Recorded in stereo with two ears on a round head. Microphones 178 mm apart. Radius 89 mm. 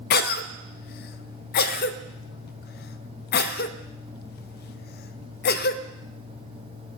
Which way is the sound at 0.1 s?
50° left (ahead or behind).